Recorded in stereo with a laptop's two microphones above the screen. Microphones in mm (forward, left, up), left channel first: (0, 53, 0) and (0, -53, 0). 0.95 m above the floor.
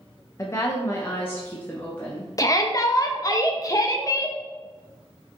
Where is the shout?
35° left (ahead or behind), 0.5 m.